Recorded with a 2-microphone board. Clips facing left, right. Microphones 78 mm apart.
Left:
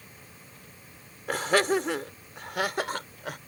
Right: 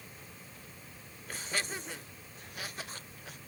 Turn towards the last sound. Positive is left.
turn(degrees=65)  # may be behind; listen again after turning